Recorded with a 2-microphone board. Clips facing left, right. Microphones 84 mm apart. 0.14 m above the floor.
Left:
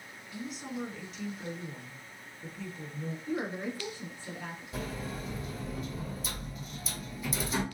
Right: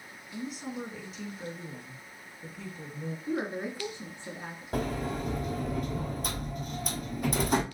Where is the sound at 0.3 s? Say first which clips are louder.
Right 2 dB; centre (ahead or behind), 1.1 m.